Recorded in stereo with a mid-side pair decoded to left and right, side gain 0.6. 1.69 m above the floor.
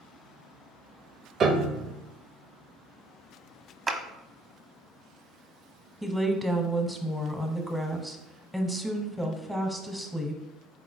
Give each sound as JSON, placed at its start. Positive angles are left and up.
{"t": 1.4, "sound": "a piano", "azimuth_deg": -40, "distance_m": 0.6}
{"t": 3.9, "sound": "a clap", "azimuth_deg": -25, "distance_m": 0.8}
{"t": 6.0, "sound": "a woman speaking", "azimuth_deg": 0, "distance_m": 1.0}